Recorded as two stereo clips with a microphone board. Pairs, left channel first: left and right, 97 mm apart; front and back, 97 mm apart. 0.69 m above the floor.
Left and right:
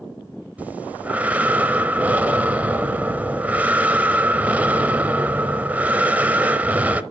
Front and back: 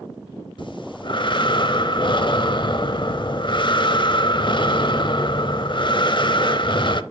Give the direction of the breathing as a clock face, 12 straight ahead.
1 o'clock.